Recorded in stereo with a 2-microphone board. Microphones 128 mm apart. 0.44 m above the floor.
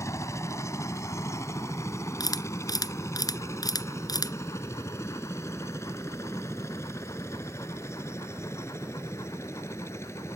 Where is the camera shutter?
30° left (ahead or behind).